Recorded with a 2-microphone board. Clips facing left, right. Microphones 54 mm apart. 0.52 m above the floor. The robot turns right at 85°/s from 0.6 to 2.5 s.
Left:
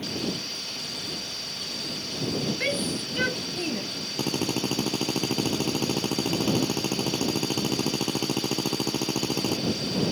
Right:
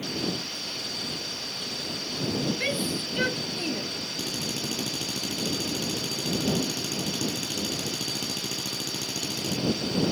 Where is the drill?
45° left (ahead or behind).